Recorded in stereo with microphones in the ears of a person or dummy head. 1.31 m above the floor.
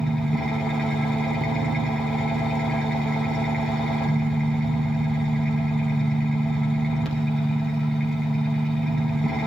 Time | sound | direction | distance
0.0 | an engine running | 5° left (ahead or behind) | 5 m